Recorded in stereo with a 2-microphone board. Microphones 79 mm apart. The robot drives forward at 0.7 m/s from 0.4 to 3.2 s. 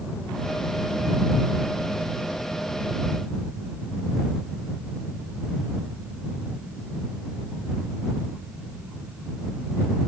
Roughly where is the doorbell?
No doorbell in this recording.